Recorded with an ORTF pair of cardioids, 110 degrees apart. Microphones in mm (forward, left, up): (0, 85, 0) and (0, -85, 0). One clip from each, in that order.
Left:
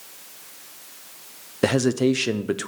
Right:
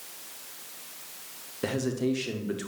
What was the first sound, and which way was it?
A man speaking, 50° left.